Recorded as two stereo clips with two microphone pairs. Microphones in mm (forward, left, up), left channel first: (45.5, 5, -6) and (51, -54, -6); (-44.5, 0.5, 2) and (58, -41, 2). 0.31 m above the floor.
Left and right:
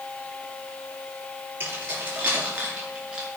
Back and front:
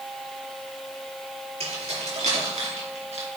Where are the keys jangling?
30° right, 4.5 m; by 3.3 s 5° right, 3 m.